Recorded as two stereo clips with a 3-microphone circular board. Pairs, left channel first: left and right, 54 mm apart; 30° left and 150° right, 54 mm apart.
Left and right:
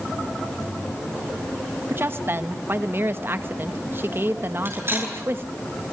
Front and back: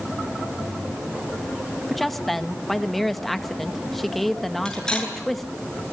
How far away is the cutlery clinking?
About 8 m.